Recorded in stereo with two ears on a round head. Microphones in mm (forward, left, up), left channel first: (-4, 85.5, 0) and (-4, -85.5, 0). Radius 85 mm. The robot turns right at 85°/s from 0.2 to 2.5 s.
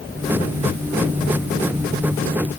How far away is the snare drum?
I don't hear a snare drum.